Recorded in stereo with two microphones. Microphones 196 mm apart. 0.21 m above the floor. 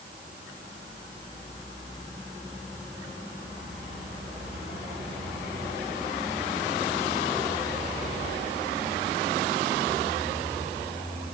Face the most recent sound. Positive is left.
No sound to turn to.